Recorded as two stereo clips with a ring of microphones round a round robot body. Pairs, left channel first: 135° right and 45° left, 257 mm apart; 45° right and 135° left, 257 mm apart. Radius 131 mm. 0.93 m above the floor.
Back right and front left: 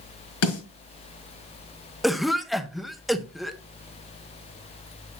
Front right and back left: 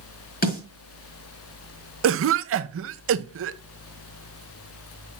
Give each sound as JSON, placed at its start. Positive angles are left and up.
{"t": 0.4, "sound": "a snare drum", "azimuth_deg": -100, "distance_m": 6.0}
{"t": 2.0, "sound": "a cough", "azimuth_deg": 135, "distance_m": 0.8}